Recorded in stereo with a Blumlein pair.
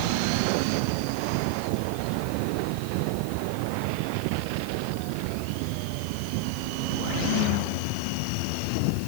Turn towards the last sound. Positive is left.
No sound to turn to.